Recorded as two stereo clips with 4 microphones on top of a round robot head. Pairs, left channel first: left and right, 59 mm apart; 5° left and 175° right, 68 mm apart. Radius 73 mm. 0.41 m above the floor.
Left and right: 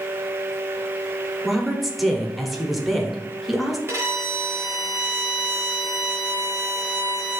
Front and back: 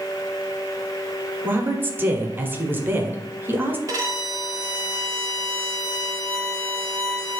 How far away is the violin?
About 1.1 m.